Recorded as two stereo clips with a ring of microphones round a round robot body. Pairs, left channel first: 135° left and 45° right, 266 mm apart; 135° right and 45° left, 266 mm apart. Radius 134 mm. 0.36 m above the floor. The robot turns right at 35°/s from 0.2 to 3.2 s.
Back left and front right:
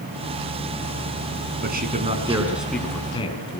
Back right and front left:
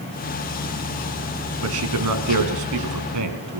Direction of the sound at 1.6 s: 10° left.